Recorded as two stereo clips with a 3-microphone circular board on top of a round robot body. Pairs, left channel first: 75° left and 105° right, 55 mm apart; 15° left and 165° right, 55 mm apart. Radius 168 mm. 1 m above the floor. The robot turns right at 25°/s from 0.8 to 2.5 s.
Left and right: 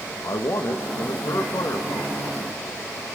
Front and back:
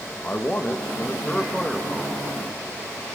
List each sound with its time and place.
0.2 s a man speaking: 75° left, 1.4 m; by 2.4 s 115° left, 1.4 m